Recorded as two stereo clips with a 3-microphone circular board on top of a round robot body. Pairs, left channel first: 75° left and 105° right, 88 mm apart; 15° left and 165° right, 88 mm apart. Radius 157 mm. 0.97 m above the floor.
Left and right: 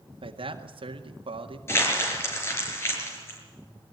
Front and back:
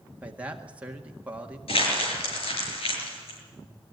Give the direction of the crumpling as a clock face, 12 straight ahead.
12 o'clock.